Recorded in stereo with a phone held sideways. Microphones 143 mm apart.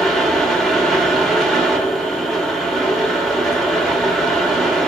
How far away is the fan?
About 0.7 m.